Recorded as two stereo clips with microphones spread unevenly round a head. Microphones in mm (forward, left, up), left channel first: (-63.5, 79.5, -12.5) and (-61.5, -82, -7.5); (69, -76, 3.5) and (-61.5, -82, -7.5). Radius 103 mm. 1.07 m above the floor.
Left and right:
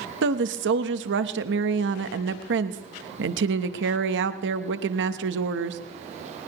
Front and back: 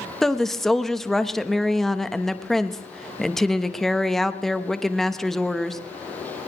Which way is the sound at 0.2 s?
85° right.